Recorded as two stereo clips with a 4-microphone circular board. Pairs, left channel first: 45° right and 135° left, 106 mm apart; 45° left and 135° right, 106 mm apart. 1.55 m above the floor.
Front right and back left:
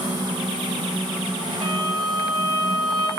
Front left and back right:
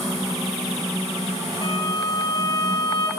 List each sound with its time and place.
1.6 s a violin: 85° left, 8 m